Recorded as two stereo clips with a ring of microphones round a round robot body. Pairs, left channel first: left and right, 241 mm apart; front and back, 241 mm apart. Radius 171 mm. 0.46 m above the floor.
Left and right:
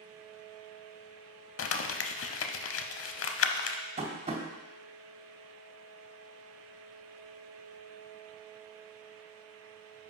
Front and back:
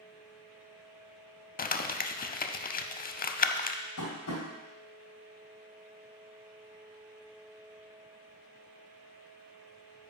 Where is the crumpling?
55° left, 0.6 m.